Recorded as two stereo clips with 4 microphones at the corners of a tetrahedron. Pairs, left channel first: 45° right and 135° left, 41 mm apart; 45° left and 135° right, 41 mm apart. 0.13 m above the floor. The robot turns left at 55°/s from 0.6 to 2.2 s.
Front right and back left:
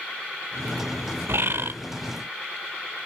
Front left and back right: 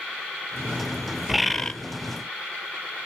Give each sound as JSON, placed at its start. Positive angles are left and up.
{"t": 1.3, "sound": "a bird", "azimuth_deg": 140, "distance_m": 0.6}